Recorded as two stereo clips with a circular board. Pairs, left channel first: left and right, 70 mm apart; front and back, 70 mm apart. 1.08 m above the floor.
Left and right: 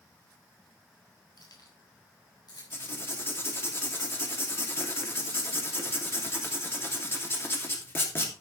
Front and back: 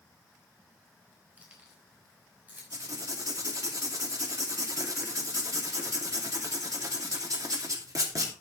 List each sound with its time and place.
1.4 s keys jangling: 110° left, 4 m; by 3.7 s 115° left, 7 m
2.7 s writing: 145° left, 2.5 m